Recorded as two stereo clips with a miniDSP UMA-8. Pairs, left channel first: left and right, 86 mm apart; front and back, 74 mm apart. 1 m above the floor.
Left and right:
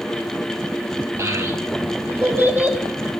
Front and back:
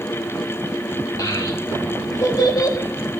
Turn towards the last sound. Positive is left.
turn(degrees=-20)